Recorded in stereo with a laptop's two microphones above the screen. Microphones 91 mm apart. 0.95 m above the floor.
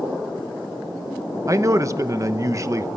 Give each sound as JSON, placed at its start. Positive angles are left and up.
{"t": 1.5, "sound": "a man speaking", "side_deg": -35, "distance_m": 0.8}